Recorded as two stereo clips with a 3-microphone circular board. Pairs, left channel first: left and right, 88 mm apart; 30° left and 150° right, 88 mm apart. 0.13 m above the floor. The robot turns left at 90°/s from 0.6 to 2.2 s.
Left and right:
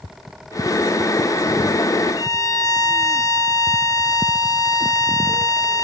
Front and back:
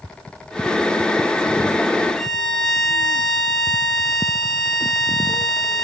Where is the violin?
125° left, 0.6 m; by 5.8 s 120° left, 0.6 m.